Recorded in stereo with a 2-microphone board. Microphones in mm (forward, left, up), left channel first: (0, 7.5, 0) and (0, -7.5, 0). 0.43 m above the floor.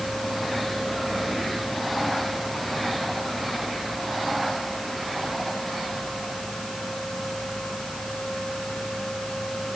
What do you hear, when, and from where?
Only background noise.